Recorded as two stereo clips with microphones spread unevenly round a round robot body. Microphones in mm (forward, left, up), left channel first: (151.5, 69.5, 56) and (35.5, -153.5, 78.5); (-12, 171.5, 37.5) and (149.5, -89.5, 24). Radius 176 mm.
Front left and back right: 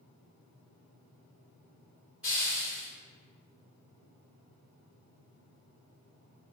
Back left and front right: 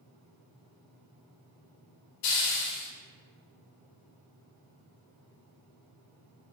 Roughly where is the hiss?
Behind left.